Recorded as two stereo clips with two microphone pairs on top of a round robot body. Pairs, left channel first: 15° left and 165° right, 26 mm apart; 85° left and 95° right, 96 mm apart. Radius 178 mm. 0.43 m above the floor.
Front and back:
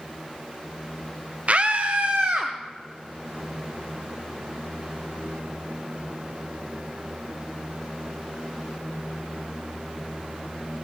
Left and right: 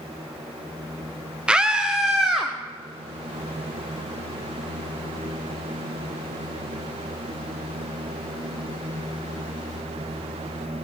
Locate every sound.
1.5 s a scream: 175° right, 0.9 m; by 2.5 s straight behind, 1.4 m